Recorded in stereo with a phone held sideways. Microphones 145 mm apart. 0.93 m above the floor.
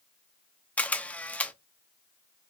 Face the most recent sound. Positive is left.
turn(degrees=10)  # may be behind; listen again after turning